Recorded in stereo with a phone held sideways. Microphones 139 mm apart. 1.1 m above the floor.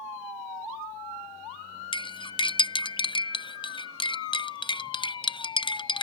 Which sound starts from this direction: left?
Cutlery clinking, at 1.9 s.